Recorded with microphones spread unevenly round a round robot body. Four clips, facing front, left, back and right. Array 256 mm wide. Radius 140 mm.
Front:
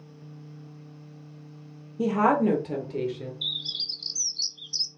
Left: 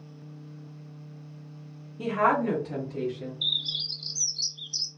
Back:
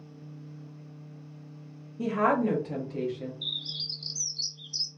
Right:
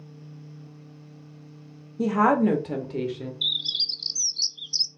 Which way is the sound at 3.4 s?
5° right.